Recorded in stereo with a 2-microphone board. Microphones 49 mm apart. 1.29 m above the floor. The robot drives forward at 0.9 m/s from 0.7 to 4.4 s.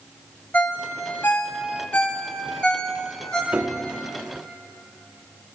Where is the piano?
30° right (ahead or behind), 1.0 m; by 4.0 s 20° right (ahead or behind), 1.3 m.